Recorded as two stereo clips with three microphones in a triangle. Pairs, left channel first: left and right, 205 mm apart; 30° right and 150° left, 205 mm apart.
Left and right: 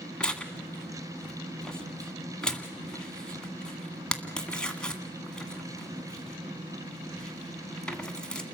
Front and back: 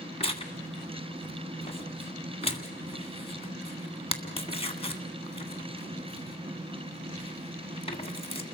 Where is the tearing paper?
5° left, 1.8 m.